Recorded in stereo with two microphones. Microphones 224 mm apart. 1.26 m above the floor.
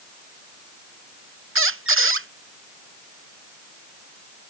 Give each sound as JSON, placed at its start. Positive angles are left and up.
{"t": 1.6, "sound": "a squeak", "side_deg": -70}